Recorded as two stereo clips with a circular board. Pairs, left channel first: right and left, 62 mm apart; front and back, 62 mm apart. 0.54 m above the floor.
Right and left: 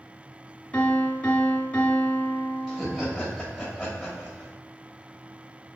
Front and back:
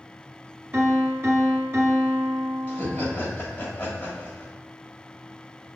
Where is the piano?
150° right, 0.8 m.